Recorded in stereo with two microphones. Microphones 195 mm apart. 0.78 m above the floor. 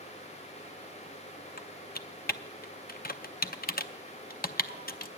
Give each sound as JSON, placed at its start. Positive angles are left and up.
{"t": 1.6, "sound": "typing on a keyboard", "side_deg": 50, "distance_m": 0.5}